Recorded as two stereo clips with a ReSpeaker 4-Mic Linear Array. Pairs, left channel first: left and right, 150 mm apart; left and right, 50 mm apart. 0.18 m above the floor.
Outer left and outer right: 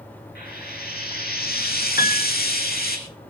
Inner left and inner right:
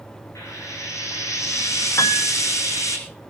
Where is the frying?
75° left (ahead or behind), 3.5 m.